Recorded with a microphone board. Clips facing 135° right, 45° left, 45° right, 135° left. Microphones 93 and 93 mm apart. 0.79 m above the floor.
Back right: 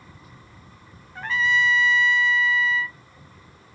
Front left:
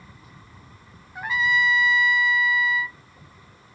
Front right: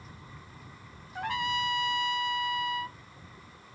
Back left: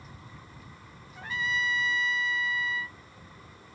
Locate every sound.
1.1 s a trumpet: 35° right